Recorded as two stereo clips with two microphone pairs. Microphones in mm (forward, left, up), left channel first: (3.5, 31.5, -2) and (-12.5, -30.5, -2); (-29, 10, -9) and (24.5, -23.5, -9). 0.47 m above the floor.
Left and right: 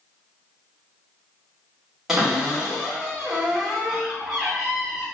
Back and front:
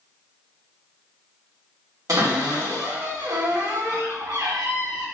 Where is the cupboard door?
20° right, 1.2 m.